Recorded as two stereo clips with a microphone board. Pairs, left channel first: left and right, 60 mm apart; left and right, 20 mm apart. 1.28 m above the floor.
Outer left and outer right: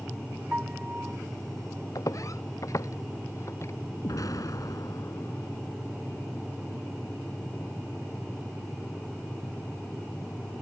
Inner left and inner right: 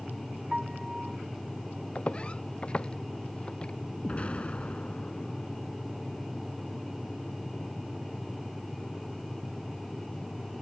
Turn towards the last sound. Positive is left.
turn(degrees=75)  # may be behind; listen again after turning